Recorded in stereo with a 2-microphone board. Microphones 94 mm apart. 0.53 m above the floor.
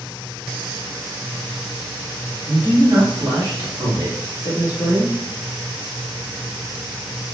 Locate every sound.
2.5 s a man speaking: 45° right (ahead or behind), 1.5 m; by 5.2 s 35° right (ahead or behind), 2.5 m